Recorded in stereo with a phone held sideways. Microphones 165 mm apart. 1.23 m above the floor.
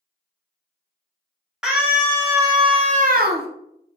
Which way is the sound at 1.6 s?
5° right (ahead or behind).